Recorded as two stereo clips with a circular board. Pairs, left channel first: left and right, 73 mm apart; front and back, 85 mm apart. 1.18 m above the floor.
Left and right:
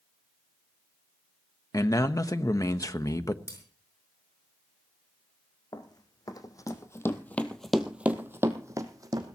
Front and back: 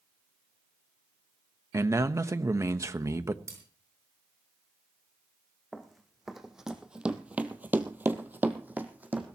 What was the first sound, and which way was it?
A man speaking, 130° left.